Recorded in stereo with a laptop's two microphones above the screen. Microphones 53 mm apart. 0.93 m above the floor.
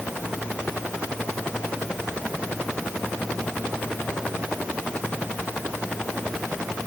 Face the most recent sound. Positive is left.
No sound to turn to.